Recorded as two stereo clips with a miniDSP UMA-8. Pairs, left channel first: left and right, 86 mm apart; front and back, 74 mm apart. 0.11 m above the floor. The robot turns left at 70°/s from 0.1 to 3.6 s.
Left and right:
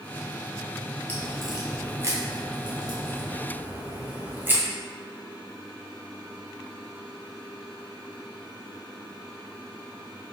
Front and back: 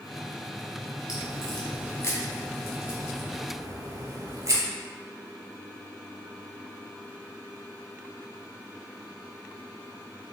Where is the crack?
25° left, 1.1 m; by 4.6 s 150° right, 1.1 m.